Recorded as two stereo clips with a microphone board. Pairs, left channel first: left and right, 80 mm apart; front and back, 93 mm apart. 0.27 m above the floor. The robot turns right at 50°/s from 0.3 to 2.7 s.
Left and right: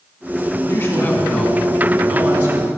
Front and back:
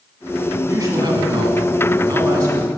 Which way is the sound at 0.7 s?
125° left.